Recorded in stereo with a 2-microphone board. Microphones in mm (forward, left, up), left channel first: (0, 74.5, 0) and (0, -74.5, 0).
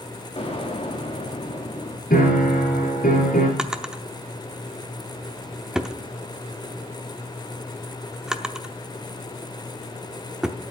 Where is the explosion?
40° left (ahead or behind), 1.8 m.